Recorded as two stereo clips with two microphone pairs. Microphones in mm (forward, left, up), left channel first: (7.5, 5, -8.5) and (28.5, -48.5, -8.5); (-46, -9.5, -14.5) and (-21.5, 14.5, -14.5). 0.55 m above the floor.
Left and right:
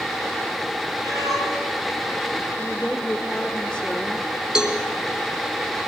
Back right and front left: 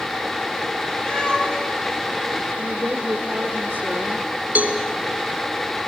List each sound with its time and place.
1.0 s a cat meowing: 70° right, 6.5 m
2.6 s a woman speaking: 40° left, 1.4 m
4.5 s a cowbell: 10° left, 2.5 m